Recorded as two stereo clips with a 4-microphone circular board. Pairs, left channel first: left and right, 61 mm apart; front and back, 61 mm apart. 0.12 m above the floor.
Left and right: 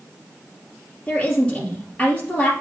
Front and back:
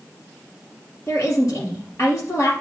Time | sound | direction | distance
1.1 | a woman speaking | 30° left | 3 m